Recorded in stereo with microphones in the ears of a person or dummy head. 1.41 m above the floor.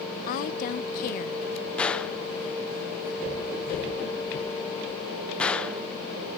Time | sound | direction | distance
0.3 | a woman speaking | 40° left (ahead or behind) | 0.6 m
1.8 | a gunshot | 10° left (ahead or behind) | 0.9 m